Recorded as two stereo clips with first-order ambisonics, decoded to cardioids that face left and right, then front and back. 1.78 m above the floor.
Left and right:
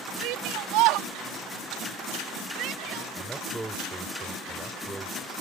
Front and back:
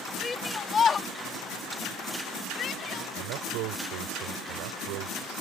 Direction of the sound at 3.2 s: 170° right.